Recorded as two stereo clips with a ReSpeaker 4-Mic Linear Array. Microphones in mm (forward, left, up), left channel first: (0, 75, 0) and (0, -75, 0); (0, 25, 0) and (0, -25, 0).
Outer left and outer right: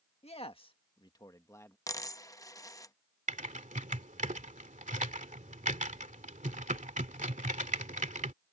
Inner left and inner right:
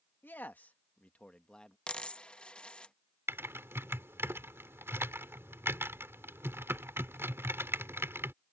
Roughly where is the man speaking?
Left.